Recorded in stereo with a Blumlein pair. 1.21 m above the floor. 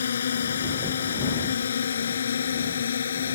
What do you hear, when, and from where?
0.0 s a drone: 65° left